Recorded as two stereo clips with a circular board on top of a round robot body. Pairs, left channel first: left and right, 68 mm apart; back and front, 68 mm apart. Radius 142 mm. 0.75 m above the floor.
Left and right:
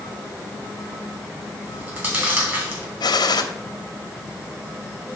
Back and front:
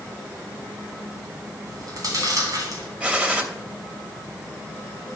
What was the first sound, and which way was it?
Chewing, 35° right.